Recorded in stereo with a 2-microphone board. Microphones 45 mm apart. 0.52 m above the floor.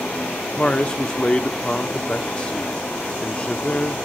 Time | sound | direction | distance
0.6 | a man speaking | 25° left (ahead or behind) | 1.2 m